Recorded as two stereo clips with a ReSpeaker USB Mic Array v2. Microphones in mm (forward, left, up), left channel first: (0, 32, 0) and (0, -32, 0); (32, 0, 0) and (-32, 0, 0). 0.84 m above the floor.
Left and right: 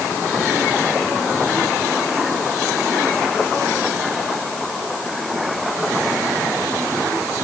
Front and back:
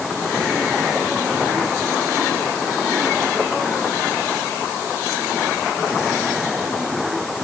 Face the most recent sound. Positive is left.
No sound to turn to.